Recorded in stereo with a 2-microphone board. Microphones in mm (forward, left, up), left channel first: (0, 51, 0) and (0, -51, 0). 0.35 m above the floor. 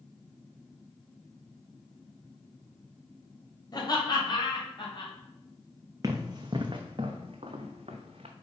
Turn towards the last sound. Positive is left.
turn(degrees=-80)